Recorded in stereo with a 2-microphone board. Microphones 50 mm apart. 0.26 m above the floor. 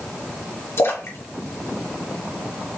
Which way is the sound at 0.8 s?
60° left (ahead or behind).